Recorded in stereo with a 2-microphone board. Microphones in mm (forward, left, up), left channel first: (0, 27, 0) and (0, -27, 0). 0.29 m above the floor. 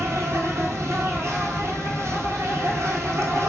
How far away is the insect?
About 1.1 m.